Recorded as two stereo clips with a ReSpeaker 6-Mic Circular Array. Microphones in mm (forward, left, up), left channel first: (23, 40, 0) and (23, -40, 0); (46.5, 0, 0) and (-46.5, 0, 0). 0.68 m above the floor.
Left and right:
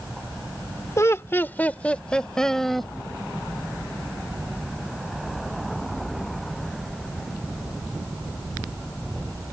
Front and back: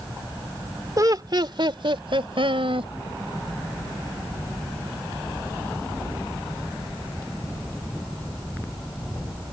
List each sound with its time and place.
1.0 s laughter: 135° left; by 2.9 s straight behind